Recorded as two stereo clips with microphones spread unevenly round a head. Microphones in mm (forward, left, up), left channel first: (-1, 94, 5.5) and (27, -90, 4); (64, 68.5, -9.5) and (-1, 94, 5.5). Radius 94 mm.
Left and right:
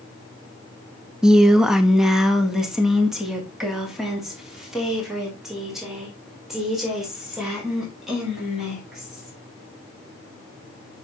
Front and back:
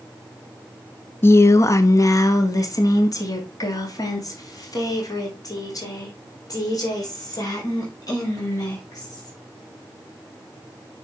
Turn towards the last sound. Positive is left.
turn(degrees=5)